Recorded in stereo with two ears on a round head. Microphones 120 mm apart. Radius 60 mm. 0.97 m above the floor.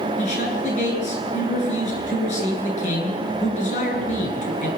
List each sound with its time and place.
0.2 s a man speaking: 55° left (ahead or behind), 8.5 m